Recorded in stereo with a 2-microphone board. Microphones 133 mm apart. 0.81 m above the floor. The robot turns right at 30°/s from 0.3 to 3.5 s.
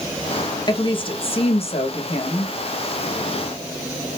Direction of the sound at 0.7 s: 45° left.